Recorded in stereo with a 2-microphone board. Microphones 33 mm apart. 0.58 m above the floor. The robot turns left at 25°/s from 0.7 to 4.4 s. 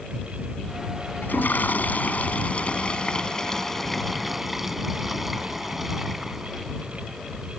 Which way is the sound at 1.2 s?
75° left.